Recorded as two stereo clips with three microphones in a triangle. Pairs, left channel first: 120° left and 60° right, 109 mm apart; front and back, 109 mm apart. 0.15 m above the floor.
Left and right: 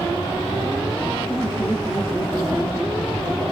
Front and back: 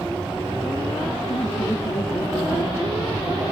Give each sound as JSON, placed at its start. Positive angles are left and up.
{"t": 1.3, "sound": "laughter", "azimuth_deg": 30, "distance_m": 4.5}